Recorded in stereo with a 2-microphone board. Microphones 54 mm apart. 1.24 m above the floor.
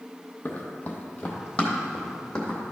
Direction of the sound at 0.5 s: 35° left (ahead or behind).